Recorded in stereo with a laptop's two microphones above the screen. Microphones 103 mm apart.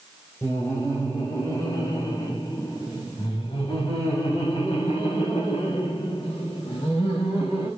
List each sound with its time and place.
0.4 s laughter: 25° left (ahead or behind), 5 m; by 7.7 s 50° left (ahead or behind), 8.5 m